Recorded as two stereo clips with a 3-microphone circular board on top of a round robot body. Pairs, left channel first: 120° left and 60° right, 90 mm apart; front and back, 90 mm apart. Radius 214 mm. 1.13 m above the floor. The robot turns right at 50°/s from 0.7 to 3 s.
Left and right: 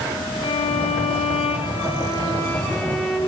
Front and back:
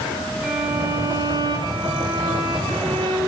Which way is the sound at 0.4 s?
100° left.